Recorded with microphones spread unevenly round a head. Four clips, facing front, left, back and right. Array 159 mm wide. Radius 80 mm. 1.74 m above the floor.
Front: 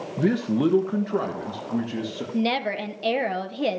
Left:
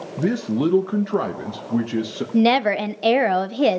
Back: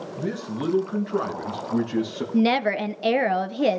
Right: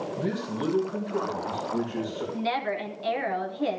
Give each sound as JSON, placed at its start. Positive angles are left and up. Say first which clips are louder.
{"t": 0.2, "sound": "a man speaking", "louder": "left 12 dB, front 8 dB", "azimuth_deg": 40, "distance_m": 1.4}
{"t": 2.3, "sound": "a woman speaking", "louder": "left 13 dB, back 5 dB", "azimuth_deg": 105, "distance_m": 1.0}